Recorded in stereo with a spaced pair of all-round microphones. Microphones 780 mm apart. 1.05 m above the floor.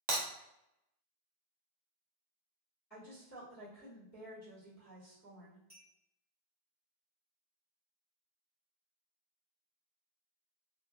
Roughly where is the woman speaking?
Centre.